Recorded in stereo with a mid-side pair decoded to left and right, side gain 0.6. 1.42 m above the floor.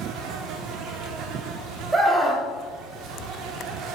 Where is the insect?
65° right, 0.8 m.